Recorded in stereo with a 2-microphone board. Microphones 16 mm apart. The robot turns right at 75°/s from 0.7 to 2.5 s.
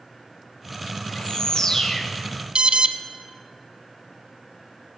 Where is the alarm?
65° right (ahead or behind), 1.0 m.